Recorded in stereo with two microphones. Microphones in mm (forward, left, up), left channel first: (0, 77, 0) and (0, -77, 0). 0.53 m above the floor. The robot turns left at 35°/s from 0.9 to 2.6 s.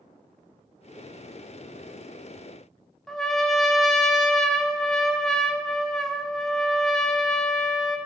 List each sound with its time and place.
3.1 s a trumpet: 5° left (ahead or behind), 0.7 m